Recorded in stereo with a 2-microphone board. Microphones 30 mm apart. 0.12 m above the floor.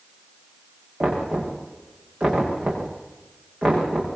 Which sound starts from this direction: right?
Knocking, at 1.0 s.